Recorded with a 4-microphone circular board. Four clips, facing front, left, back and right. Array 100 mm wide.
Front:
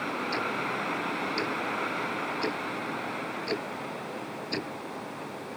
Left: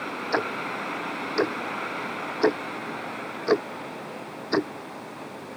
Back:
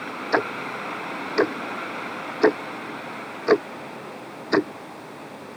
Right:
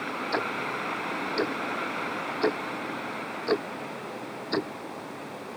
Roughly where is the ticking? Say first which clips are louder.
Left 3 dB, back 10 dB; behind.